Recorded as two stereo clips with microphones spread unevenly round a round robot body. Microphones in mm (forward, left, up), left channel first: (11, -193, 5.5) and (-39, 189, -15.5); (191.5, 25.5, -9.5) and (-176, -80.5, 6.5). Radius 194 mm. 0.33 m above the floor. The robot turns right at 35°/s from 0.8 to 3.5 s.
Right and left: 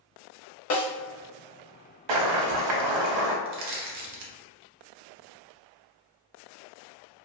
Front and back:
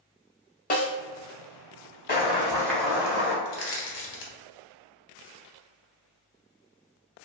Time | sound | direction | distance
0.7 | a snare drum | 45° right | 0.8 m
2.1 | boiling | 80° left | 0.7 m
3.5 | crushing | 55° left | 0.6 m